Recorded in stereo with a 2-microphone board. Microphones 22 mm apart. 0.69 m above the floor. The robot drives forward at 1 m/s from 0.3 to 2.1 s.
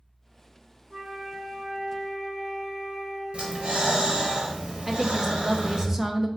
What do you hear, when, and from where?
0.9 s a flute: 60° right (ahead or behind), 1.8 m; by 4.3 s 40° right (ahead or behind), 2.5 m
3.3 s breathing: 65° right (ahead or behind), 1.0 m
4.9 s a woman speaking: 20° right (ahead or behind), 0.6 m